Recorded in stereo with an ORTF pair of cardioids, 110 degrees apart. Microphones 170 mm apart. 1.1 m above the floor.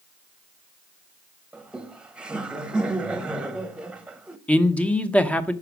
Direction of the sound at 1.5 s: 5° right.